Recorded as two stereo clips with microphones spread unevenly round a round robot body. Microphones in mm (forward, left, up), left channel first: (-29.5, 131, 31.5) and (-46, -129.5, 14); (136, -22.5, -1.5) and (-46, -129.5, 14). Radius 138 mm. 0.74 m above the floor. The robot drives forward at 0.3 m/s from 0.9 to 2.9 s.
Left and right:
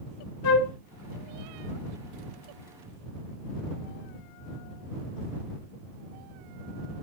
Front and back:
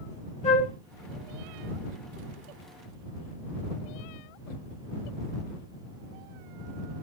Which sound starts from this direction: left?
A flute, at 0.4 s.